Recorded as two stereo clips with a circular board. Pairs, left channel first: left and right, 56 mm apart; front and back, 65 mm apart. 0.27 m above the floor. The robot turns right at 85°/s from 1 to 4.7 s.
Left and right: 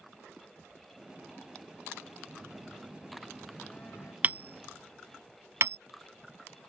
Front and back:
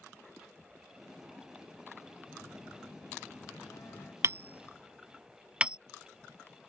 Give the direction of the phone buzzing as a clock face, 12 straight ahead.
3 o'clock.